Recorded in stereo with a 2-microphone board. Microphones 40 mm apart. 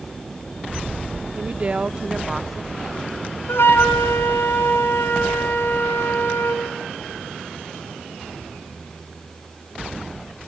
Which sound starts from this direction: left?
A flute, at 3.5 s.